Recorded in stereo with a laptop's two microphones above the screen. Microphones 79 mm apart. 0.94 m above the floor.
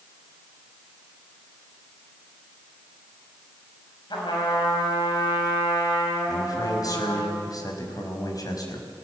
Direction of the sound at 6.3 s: 50° left (ahead or behind).